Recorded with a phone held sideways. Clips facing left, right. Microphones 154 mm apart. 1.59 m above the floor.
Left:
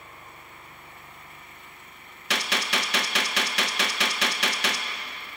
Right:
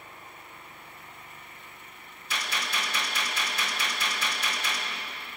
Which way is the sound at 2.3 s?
75° left (ahead or behind).